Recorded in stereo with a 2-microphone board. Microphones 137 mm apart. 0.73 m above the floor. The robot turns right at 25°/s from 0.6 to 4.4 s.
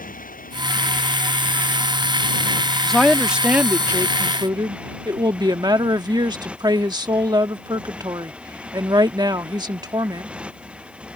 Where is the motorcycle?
95° left; by 11.2 s 170° right.